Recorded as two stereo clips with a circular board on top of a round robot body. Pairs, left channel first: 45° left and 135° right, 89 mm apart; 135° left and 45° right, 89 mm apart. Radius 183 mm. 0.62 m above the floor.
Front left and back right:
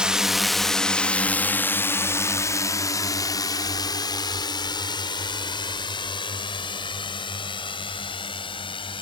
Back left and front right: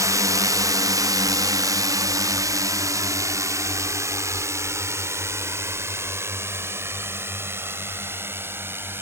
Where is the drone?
60° right; by 9.0 s 20° left.